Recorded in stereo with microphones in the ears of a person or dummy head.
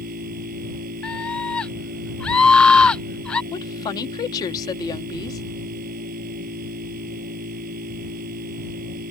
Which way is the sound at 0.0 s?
45° right (ahead or behind).